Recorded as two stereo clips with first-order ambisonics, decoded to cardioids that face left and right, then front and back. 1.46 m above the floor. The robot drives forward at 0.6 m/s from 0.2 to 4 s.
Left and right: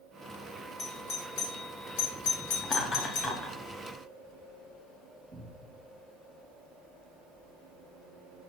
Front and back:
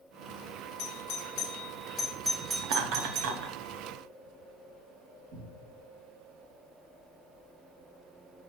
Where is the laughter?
155° left, 0.6 m; by 3.6 s 165° left, 1.1 m.